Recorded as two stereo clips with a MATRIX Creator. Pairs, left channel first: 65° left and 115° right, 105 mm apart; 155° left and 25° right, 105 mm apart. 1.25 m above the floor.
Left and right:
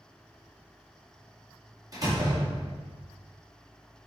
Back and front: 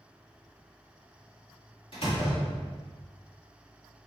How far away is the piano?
I don't hear a piano.